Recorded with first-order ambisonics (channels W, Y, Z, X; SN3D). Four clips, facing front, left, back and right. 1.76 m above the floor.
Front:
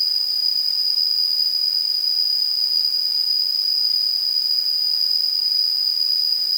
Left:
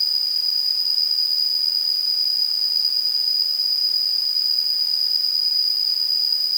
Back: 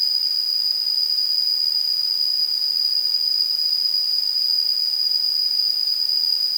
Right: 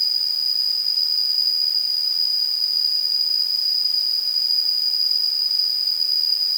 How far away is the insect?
About 3 m.